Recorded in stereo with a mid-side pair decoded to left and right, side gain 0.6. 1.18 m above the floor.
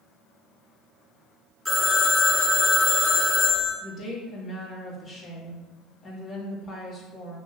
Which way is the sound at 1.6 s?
5° right.